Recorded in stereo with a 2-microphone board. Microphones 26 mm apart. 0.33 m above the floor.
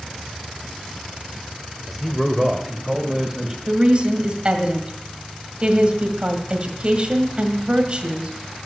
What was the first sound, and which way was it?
A man speaking, 5° left (ahead or behind).